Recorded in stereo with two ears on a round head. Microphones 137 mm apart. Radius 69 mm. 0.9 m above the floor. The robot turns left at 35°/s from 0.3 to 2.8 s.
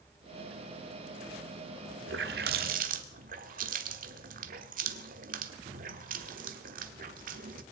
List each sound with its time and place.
2.1 s a running tap: 85° right, 1.4 m; by 7.6 s 60° right (ahead or behind), 1.4 m